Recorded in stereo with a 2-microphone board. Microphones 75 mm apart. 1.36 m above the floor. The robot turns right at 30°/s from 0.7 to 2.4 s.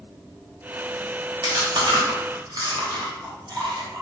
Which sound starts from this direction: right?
Chewing, at 1.4 s.